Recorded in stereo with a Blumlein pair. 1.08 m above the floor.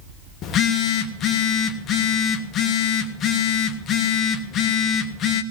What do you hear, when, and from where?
0.4 s a phone buzzing: 30° left, 1.4 m